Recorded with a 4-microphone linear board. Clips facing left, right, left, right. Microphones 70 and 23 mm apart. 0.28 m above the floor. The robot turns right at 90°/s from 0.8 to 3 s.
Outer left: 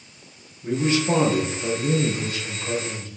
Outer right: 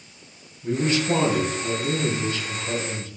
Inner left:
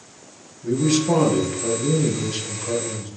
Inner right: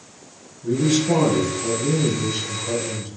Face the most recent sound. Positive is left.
turn(degrees=-145)